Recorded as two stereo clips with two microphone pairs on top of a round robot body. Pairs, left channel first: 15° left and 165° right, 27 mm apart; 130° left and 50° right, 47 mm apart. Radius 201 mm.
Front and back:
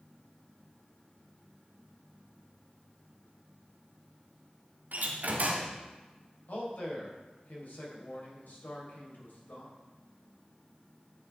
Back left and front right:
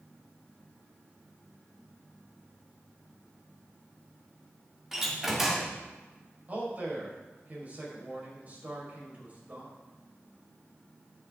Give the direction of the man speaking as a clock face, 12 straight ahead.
12 o'clock.